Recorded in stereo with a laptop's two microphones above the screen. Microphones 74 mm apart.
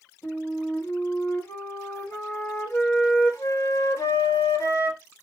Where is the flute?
45° left (ahead or behind), 1.7 m.